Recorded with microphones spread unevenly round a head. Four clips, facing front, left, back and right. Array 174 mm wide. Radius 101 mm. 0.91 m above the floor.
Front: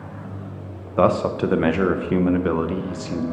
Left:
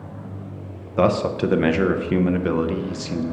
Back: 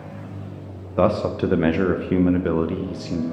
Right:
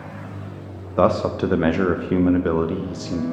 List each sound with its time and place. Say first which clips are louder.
1.0 s a man speaking: right 1 dB, front 1 dB; 35° right, 0.6 m